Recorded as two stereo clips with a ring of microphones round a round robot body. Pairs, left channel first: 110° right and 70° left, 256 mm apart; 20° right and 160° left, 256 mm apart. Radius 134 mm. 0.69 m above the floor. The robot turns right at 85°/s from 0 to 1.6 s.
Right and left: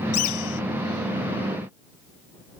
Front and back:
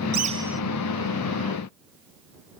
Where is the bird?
150° right; by 0.6 s 110° right.